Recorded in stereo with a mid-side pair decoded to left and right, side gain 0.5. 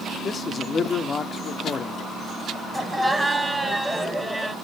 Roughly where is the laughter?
Ahead.